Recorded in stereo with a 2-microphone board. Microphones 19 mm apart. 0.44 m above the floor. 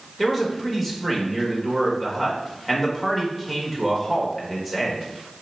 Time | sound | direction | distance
0.2 | a man speaking | centre (ahead or behind) | 1.3 m